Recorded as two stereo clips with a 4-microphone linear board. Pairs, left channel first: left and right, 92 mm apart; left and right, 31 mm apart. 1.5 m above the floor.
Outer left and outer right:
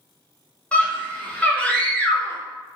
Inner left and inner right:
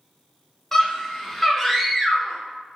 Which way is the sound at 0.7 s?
15° left (ahead or behind).